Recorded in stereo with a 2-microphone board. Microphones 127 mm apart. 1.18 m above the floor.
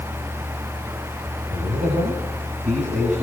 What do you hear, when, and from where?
1.5 s a man speaking: 65° right (ahead or behind), 7.5 m; by 3.2 s 60° right (ahead or behind), 8.5 m